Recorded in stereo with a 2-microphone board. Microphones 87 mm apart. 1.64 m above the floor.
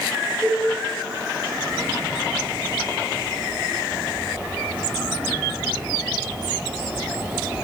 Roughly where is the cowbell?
Centre.